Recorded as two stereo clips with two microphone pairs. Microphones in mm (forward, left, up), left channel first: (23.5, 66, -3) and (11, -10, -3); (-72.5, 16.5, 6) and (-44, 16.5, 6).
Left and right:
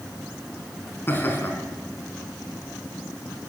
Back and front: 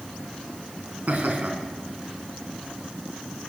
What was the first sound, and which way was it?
Laughter, 25° left.